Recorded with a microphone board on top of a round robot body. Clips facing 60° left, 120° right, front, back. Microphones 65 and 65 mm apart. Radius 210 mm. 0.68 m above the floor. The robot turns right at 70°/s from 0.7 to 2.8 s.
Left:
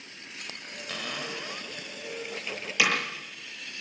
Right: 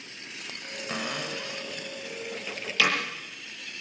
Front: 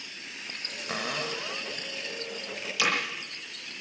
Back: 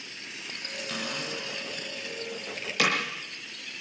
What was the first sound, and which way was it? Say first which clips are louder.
A cupboard door: right 3 dB, front 3 dB; 55° right.